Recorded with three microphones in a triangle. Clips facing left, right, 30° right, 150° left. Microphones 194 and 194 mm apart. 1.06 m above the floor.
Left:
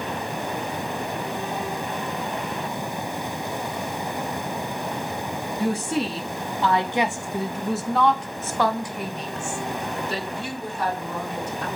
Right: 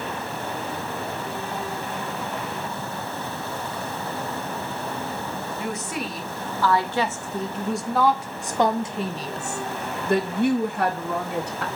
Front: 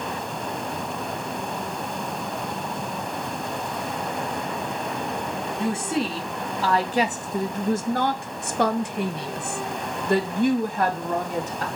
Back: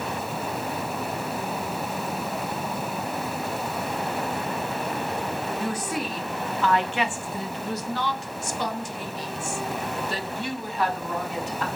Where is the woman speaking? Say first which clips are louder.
Left 8 dB, front 8 dB; 35° left, 2.5 m; by 11.7 s 80° right, 2 m.